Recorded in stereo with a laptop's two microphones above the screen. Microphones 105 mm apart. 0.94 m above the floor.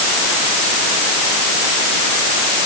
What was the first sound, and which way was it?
Only background noise.